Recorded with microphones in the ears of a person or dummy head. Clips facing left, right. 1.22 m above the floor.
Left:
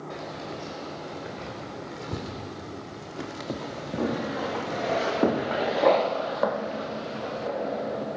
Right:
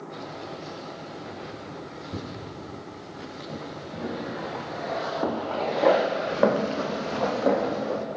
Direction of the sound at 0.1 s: 65° left (ahead or behind).